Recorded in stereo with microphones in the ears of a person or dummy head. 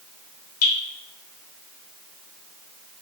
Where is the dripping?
85° left, 1.3 m.